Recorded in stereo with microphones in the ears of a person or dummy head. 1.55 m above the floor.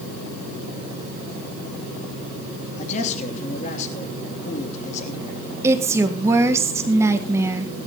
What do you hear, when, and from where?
2.8 s a man speaking: 40° left (ahead or behind), 3 m
5.6 s a woman speaking: 20° right (ahead or behind), 1.7 m